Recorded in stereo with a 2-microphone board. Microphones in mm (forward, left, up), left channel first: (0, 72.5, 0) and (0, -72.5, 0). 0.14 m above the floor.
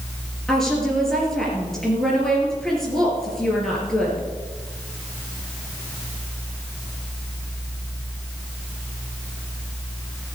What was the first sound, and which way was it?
A woman speaking, 5° left (ahead or behind).